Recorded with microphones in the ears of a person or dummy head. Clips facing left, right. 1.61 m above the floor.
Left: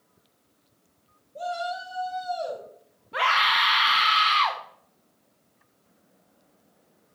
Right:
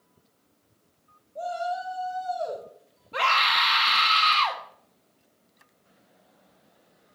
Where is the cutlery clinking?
No cutlery clinking in this recording.